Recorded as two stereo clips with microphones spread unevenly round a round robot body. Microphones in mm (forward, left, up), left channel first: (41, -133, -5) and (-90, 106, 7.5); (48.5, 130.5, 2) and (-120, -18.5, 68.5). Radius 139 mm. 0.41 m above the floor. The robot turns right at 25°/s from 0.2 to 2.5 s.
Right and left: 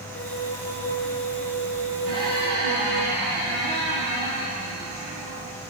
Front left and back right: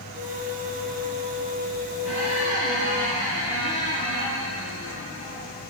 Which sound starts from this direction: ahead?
A flute, at 0.1 s.